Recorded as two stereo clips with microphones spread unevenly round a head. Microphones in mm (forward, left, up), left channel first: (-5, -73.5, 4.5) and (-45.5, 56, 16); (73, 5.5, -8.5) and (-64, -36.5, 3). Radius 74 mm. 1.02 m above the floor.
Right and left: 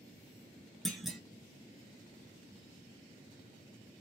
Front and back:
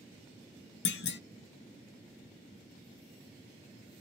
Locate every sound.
0.8 s a clunk: 20° left, 0.6 m